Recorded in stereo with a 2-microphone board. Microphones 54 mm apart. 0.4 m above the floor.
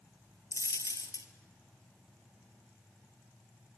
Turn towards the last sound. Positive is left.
turn(degrees=75)  # may be behind; listen again after turning